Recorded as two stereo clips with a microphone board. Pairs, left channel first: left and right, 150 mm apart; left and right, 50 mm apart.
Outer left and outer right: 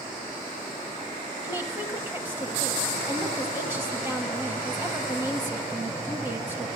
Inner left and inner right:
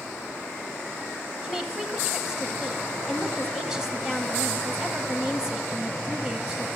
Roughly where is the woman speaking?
Centre.